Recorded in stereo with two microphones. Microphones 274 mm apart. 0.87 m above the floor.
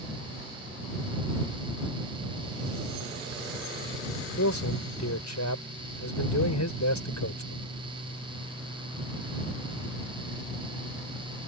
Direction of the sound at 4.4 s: 80° left.